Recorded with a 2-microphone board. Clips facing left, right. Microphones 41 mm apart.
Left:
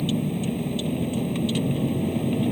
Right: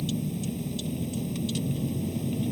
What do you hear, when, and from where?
0.0 s a vehicle: 40° left (ahead or behind)